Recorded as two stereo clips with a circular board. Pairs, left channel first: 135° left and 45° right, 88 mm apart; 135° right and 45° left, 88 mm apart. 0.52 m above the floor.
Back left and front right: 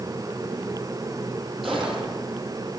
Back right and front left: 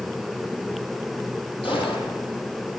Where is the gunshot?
135° right, 9 m.